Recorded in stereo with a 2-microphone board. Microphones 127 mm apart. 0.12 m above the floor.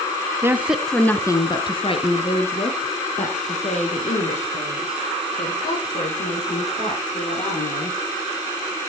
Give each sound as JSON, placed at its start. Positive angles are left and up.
{"t": 0.4, "sound": "a woman speaking", "side_deg": -20, "distance_m": 1.1}